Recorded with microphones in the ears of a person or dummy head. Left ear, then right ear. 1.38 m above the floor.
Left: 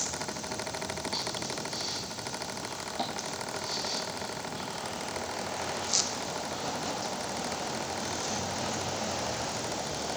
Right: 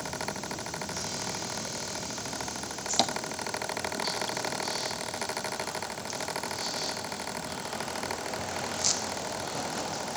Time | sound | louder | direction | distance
3.0 | tapping | right 8 dB | 75° right (ahead or behind) | 0.6 m